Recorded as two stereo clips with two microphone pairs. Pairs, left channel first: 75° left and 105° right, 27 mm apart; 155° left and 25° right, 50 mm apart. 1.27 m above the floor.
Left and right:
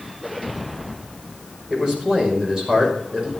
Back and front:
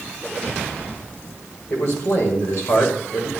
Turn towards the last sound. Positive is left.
turn(degrees=-175)